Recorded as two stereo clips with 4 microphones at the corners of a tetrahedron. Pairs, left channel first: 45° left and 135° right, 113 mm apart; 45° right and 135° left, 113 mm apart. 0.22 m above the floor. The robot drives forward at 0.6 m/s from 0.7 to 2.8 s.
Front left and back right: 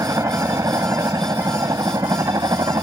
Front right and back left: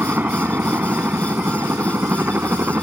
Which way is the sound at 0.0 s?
165° right.